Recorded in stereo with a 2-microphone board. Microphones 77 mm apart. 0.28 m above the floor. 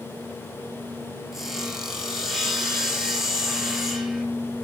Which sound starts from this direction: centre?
Sawing, at 1.3 s.